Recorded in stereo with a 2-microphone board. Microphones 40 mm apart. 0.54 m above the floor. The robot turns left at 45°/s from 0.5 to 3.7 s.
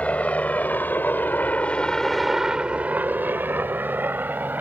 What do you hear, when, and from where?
0.0 s a helicopter: 40° left (ahead or behind); by 4.6 s 50° right (ahead or behind)